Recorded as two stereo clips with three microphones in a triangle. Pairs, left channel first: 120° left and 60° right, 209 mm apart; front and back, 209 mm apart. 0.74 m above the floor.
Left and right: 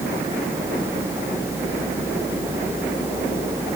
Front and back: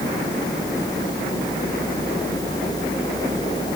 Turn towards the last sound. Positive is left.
No sound to turn to.